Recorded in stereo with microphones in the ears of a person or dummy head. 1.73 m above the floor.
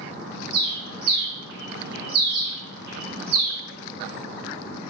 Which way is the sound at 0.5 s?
60° right (ahead or behind).